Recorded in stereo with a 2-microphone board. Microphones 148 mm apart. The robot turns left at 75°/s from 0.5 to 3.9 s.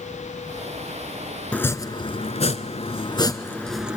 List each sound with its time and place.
1.5 s chopping: 10° left (ahead or behind), 1.0 m; by 4.0 s 10° right (ahead or behind), 1.0 m